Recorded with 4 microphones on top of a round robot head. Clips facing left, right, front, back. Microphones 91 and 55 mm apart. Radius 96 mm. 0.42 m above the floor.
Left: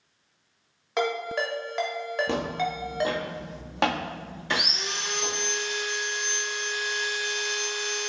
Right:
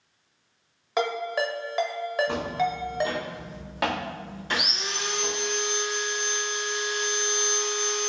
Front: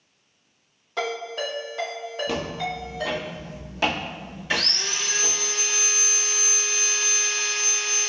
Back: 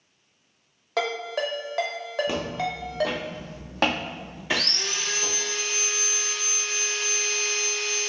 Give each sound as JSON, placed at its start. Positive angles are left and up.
{"t": 1.0, "sound": "a ringtone", "azimuth_deg": -175, "distance_m": 1.1}
{"t": 2.3, "sound": "footsteps", "azimuth_deg": 105, "distance_m": 0.6}
{"t": 4.5, "sound": "sawing", "azimuth_deg": -90, "distance_m": 1.3}